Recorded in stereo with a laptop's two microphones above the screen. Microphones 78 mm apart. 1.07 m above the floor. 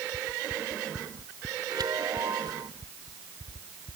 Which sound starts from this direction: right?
A chime, at 1.7 s.